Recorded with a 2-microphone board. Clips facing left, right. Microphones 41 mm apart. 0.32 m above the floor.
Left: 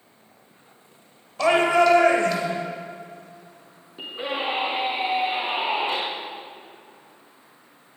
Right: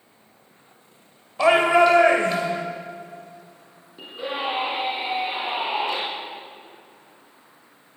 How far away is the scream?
About 4 m.